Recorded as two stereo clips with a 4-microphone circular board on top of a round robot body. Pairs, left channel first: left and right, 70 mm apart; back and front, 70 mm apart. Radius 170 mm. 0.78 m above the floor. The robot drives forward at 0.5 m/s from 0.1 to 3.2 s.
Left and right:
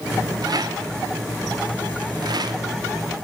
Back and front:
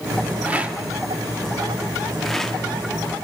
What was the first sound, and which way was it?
A rattle, 70° right.